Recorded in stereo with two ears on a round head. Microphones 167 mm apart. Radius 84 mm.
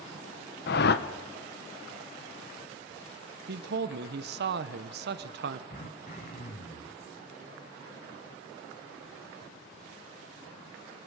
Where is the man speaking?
60° right (ahead or behind), 0.8 m.